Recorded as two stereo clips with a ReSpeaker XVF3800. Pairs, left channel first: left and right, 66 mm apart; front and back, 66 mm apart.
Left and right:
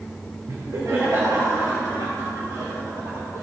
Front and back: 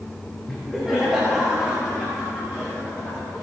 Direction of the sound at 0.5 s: 85° right.